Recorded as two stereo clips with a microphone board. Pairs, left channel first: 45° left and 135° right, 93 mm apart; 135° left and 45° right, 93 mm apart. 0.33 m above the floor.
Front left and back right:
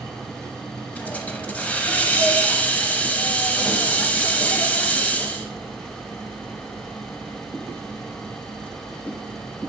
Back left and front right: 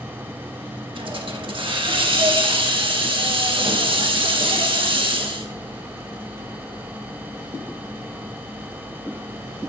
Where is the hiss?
30° right, 0.6 m.